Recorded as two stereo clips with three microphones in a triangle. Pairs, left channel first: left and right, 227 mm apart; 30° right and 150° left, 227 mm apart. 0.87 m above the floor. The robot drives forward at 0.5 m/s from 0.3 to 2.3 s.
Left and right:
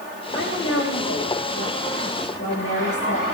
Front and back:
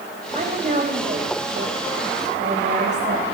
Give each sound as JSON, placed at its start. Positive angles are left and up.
{"t": 0.3, "sound": "a woman speaking", "azimuth_deg": 95, "distance_m": 5.0}